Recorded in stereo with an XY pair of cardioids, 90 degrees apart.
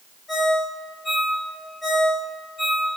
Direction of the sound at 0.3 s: 60° left.